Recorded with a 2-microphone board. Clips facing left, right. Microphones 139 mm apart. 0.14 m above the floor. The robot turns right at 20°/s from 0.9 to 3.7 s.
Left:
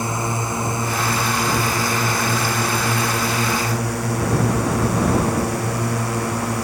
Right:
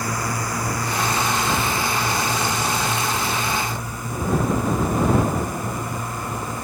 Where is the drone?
25° left; by 6.7 s 80° left.